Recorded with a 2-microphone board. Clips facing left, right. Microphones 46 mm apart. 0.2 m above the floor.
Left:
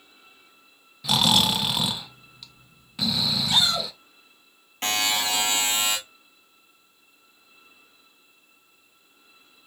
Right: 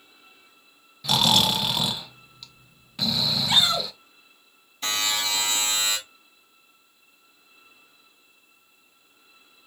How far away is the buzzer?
About 4 m.